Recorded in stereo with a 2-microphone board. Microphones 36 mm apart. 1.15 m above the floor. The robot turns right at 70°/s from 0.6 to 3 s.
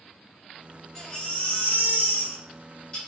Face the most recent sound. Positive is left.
turn(degrees=150)